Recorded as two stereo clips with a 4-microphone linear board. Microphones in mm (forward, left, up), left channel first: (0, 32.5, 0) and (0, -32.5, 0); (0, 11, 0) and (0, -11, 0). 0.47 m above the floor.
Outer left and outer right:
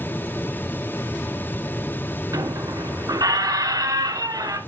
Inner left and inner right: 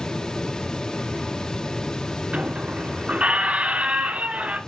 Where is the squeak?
80° right, 1.8 m.